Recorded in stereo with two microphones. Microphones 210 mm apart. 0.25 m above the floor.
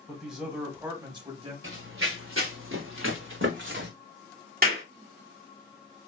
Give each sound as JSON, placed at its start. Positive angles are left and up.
{"t": 0.1, "sound": "a man speaking", "side_deg": 0, "distance_m": 1.3}
{"t": 1.6, "sound": "running footsteps", "side_deg": -75, "distance_m": 1.8}
{"t": 4.6, "sound": "a clap", "side_deg": -45, "distance_m": 1.6}